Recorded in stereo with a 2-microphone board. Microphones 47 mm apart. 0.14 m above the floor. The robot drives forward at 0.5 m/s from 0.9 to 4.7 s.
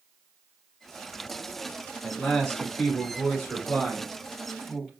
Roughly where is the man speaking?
Centre.